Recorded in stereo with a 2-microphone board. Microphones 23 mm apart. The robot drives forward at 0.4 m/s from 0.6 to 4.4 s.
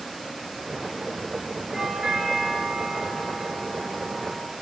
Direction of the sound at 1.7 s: 30° right (ahead or behind).